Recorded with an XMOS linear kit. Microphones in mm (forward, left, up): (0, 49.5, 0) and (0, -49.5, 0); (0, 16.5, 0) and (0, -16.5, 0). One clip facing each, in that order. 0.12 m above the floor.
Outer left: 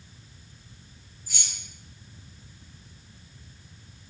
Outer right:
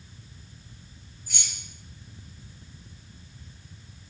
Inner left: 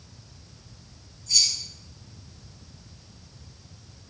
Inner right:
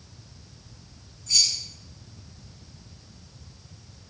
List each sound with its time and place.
1.3 s keys jangling: 50° right (ahead or behind), 1.9 m